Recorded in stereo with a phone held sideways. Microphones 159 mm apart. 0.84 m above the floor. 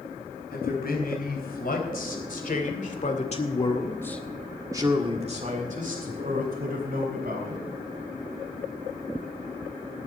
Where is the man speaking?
75° left (ahead or behind), 5 m; by 7.6 s 70° right (ahead or behind), 4.5 m.